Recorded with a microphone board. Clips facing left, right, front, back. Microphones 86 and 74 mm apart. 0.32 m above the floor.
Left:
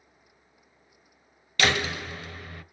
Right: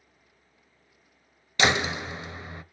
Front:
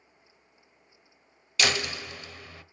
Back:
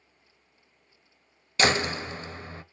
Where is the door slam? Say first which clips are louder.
Right 2 dB, back 4 dB; 145° right, 0.7 m.